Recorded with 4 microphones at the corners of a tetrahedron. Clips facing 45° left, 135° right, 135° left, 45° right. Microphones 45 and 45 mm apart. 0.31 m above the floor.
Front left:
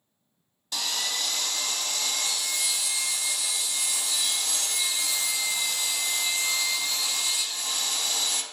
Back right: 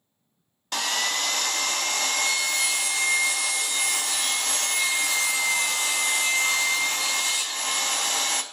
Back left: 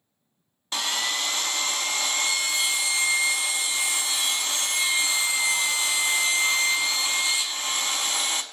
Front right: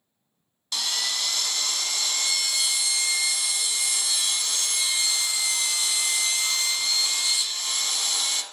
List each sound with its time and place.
0.7 s sawing: 170° right, 0.5 m